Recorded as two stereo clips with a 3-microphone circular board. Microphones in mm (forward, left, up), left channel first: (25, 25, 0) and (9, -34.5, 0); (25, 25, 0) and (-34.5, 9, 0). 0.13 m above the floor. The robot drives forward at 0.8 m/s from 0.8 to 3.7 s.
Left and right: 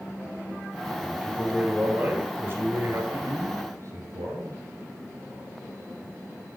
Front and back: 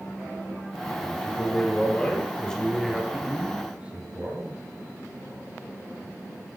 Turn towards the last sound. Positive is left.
turn(degrees=-100)